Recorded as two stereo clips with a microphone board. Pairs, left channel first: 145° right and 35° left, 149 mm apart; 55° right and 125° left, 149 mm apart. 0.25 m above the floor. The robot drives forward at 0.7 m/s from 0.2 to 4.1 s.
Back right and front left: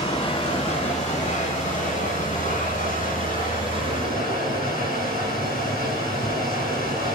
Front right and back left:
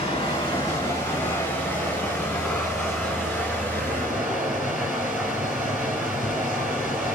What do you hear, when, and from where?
0.0 s running water: 100° right, 1.8 m; by 7.2 s 155° right, 3.5 m